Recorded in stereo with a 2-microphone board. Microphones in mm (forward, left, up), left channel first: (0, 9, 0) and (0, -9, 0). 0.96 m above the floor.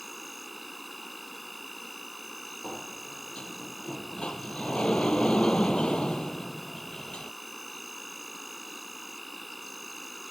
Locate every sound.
0.0 s an insect: centre (ahead or behind)
2.6 s a sliding door: 60° left (ahead or behind)